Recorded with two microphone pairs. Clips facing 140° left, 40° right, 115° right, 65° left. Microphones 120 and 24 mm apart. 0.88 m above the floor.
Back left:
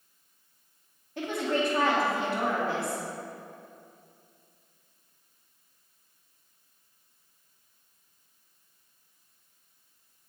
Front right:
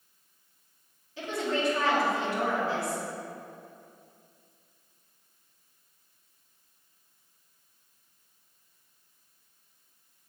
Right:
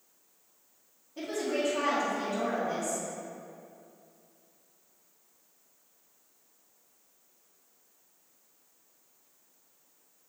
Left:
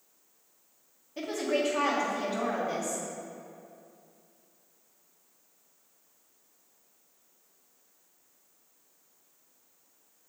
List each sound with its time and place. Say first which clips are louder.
1.2 s a woman speaking: back left 2 dB, left 2 dB; 110° left, 1.6 m